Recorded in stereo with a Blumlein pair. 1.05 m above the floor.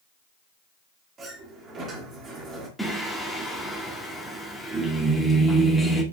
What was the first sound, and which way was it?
A sliding door, 25° right.